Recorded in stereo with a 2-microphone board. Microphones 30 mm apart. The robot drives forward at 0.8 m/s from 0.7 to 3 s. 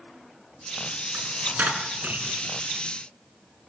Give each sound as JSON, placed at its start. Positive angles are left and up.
{"t": 1.1, "sound": "a dropped coin", "side_deg": -70, "distance_m": 4.0}